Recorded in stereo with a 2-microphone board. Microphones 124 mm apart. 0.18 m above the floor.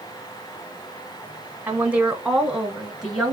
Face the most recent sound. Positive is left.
turn(degrees=-5)  # may be behind; listen again after turning